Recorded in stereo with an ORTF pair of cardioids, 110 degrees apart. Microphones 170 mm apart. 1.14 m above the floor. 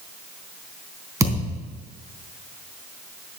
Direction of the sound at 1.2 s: 20° right.